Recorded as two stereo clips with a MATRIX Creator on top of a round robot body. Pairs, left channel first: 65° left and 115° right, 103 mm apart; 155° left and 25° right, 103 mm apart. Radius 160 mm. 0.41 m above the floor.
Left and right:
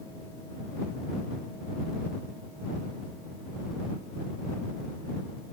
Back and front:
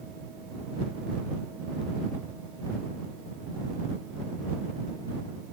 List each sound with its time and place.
Only background noise.